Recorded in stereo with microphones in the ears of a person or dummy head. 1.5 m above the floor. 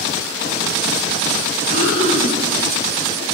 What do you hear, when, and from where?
1.7 s breathing: 30° left (ahead or behind), 1.7 m